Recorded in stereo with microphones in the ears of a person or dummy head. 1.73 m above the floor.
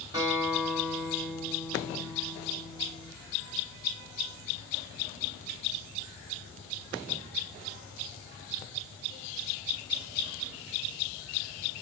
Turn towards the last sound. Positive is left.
turn(degrees=-15)  # may be behind; listen again after turning